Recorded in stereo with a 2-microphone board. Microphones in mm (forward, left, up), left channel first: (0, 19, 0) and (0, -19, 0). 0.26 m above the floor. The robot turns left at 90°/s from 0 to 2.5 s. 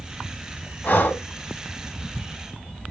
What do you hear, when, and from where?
0.8 s breathing: 110° left, 0.8 m; by 1.2 s 70° left, 0.8 m